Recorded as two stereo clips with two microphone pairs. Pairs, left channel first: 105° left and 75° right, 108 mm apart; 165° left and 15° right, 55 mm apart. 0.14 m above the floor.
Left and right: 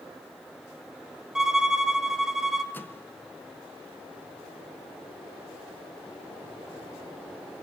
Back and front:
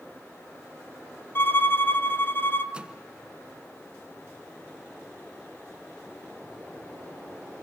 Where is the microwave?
45° left, 1.1 m.